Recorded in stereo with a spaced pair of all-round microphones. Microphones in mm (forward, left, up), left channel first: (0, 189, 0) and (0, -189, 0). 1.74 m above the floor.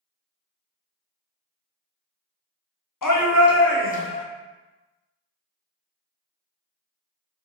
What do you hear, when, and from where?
3.0 s a shout: 50° left (ahead or behind), 0.8 m; by 4.2 s 10° left (ahead or behind), 0.7 m